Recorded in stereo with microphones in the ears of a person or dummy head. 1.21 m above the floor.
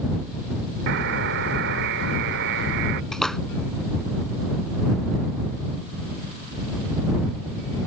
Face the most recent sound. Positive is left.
turn(degrees=0)  # may be behind; listen again after turning